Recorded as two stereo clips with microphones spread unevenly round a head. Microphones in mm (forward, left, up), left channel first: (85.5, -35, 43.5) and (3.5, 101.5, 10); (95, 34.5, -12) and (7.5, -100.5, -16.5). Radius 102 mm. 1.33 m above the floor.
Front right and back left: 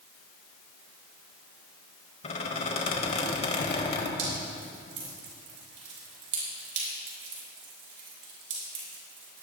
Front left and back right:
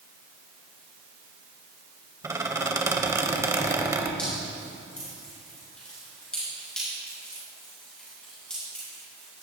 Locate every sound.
2.2 s a squeak: 55° right, 1.5 m
4.2 s dripping: 145° left, 4.5 m